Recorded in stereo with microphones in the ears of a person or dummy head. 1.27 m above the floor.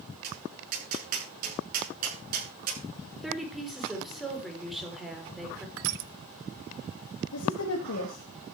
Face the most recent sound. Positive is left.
turn(degrees=85)